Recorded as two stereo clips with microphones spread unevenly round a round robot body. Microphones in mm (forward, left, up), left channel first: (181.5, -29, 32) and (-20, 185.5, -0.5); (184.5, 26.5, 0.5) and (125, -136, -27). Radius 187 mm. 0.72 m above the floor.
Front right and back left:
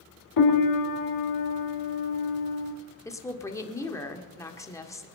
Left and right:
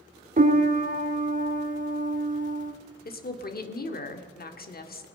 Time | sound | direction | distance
0.4 | a piano | 75° right | 1.8 m
3.0 | a woman speaking | 35° left | 2.0 m